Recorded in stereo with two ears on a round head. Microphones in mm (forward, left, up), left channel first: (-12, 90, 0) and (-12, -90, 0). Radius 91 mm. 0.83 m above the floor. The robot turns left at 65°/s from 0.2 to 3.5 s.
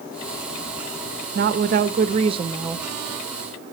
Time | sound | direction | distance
1.4 | a woman speaking | 75° right | 0.9 m